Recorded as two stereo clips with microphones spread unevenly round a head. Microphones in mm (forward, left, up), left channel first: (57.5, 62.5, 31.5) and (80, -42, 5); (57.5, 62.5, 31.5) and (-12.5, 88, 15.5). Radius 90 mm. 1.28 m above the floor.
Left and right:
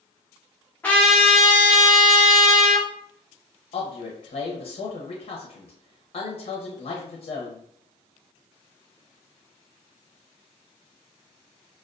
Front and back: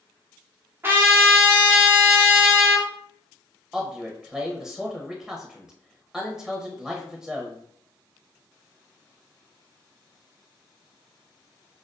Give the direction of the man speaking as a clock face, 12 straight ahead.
9 o'clock.